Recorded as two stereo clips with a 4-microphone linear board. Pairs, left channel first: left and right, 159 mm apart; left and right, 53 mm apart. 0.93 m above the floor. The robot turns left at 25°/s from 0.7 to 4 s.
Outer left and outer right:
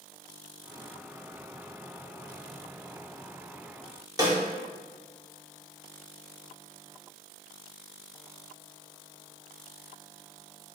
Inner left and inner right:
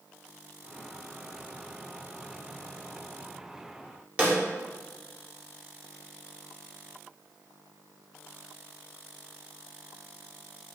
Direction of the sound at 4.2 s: 25° right (ahead or behind).